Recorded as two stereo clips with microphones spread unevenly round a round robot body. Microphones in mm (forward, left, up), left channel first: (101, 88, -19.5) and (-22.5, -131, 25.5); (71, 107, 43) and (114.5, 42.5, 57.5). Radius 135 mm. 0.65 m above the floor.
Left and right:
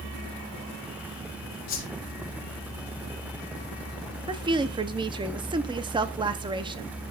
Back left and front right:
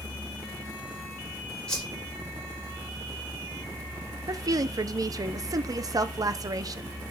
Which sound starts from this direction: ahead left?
A whoosh, at 1.7 s.